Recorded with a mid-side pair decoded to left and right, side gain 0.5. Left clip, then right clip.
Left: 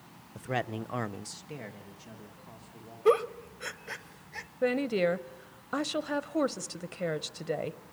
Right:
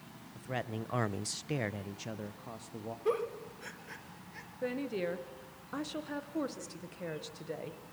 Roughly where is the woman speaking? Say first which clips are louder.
Left 8 dB; ahead left.